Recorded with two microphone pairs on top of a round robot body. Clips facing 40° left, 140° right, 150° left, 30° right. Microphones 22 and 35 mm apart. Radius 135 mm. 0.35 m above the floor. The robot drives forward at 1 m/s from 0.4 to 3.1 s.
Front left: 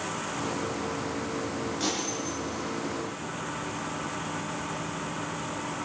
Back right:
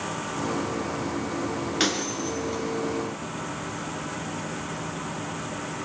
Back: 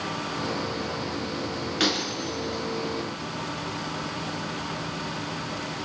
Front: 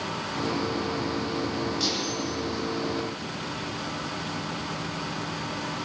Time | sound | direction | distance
1.8 | breaking glass | 170° right | 4 m